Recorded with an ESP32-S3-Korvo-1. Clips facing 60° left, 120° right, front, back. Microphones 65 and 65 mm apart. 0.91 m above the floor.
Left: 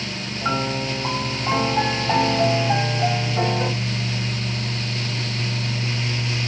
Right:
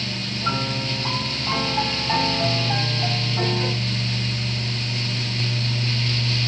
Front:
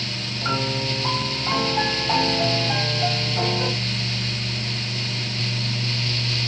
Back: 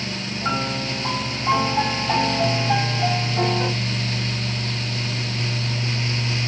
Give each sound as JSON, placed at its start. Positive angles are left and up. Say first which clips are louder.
{"t": 0.4, "sound": "a piano", "louder": "left 3 dB, even", "azimuth_deg": 90, "distance_m": 3.0}